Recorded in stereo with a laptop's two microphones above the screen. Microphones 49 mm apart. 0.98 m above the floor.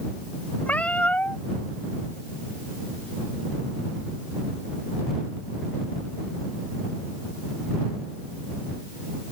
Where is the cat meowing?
30° left (ahead or behind).